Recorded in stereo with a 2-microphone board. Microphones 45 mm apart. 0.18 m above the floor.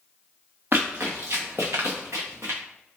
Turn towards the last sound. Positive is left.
turn(degrees=-70)  # may be behind; listen again after turning